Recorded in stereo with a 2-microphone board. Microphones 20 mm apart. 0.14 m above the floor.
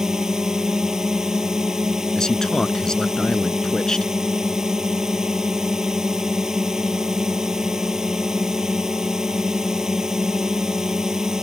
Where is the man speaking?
35° left (ahead or behind).